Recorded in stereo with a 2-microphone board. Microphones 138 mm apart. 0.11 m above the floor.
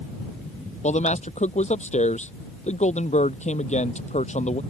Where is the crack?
I don't hear a crack.